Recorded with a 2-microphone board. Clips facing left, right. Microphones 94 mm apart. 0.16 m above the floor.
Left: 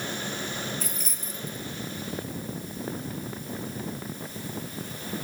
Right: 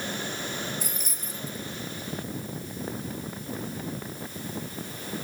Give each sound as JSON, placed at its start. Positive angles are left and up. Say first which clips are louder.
{"t": 0.8, "sound": "keys jangling", "louder": "left 1 dB", "side_deg": -10, "distance_m": 2.5}